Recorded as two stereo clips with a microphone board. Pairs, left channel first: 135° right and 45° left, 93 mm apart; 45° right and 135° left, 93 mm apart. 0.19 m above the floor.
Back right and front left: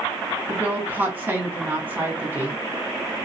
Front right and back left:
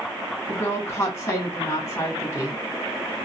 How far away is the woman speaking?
About 1.6 m.